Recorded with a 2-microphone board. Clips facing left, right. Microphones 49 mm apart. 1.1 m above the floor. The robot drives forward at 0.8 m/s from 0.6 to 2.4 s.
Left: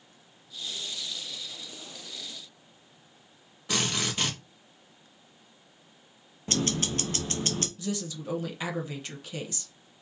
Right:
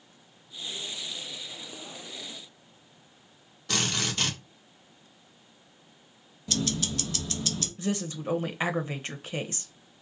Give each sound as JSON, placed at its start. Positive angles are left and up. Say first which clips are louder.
{"t": 3.7, "sound": "a drill", "louder": "even", "side_deg": 15, "distance_m": 1.7}
{"t": 6.5, "sound": "ticking", "louder": "left 1 dB", "side_deg": 40, "distance_m": 0.6}
{"t": 7.8, "sound": "a woman speaking", "louder": "right 3 dB", "side_deg": -35, "distance_m": 0.8}